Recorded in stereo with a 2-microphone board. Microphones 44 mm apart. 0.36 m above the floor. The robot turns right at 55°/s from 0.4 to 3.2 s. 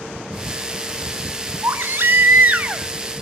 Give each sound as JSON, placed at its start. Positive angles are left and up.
{"t": 1.6, "sound": "a baby crying", "azimuth_deg": -95, "distance_m": 0.9}